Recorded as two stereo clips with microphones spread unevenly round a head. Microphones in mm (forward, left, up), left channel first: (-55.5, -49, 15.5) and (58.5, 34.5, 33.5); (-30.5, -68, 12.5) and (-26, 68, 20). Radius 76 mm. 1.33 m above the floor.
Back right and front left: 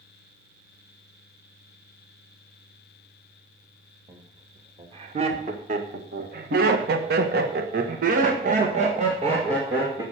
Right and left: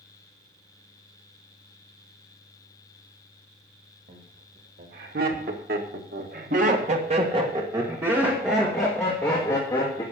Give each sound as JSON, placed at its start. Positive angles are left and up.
{"t": 4.1, "sound": "laughter", "azimuth_deg": 95, "distance_m": 3.0}